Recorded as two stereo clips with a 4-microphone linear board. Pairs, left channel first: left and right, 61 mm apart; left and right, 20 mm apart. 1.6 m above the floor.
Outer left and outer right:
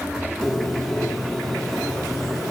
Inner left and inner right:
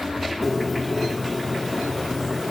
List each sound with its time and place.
0.4 s a bird: centre (ahead or behind), 1.2 m